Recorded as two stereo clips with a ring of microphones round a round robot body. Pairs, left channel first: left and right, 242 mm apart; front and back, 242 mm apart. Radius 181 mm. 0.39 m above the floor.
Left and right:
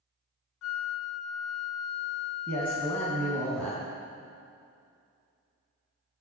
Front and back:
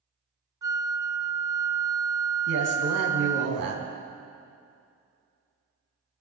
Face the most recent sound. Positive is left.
turn(degrees=175)